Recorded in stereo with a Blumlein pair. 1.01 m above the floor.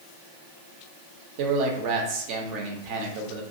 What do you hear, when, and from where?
1.4 s a man speaking: 45° right, 0.9 m